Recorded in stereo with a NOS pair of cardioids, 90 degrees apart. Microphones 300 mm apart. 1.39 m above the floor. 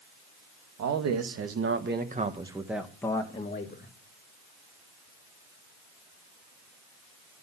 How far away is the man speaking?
About 2 m.